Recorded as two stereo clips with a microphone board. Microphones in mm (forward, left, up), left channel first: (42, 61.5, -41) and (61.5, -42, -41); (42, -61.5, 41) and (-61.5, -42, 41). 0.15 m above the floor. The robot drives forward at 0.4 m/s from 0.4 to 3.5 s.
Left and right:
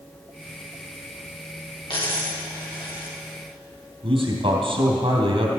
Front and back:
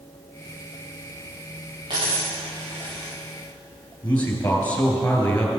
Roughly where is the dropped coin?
Behind left.